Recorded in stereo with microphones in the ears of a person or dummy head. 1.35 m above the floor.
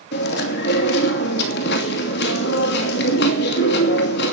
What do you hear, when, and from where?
0.1 s chewing: 70° left (ahead or behind), 2.5 m